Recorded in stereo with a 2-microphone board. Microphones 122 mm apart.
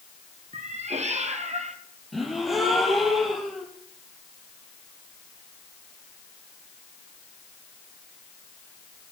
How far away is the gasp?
About 4 m.